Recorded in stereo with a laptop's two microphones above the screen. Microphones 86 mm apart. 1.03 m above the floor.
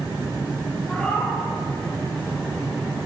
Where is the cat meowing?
15° left (ahead or behind), 2 m.